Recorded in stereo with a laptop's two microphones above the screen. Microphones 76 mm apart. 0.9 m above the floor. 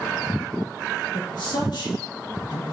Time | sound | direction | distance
1.1 | a man speaking | 80° left | 2 m